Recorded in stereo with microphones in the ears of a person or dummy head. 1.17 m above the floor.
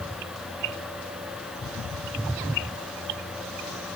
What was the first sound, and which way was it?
Only background noise.